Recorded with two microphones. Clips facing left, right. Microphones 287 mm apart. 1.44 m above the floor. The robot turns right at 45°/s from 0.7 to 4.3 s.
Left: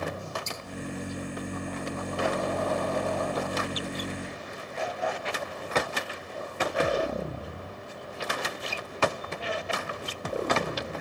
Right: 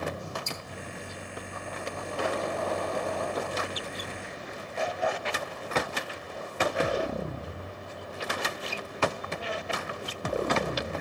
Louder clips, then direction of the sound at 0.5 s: Even; 75° left (ahead or behind).